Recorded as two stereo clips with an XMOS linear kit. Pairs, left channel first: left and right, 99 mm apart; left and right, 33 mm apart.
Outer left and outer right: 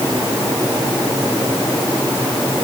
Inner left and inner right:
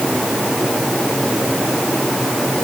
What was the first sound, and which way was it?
Only background noise.